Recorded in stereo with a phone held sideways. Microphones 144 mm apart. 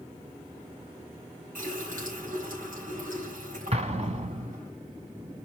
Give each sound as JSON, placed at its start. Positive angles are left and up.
{"t": 1.6, "sound": "a running tap", "side_deg": -70, "distance_m": 5.5}
{"t": 3.7, "sound": "an explosion", "side_deg": -45, "distance_m": 1.5}